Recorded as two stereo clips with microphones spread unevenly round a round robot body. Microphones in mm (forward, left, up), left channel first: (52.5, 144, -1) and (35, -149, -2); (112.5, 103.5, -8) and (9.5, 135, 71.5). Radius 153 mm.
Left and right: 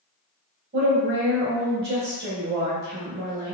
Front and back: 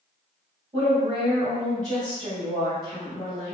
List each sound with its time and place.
0.7 s a woman speaking: 105° right, 1.2 m